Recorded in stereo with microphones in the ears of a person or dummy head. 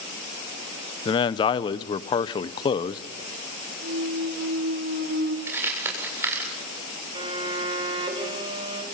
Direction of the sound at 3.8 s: 60° right (ahead or behind).